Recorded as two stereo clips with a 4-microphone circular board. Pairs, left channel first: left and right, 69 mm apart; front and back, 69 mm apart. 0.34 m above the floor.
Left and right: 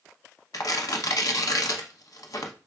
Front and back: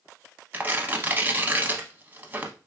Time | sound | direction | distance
0.5 | tearing paper | 115° left | 0.7 m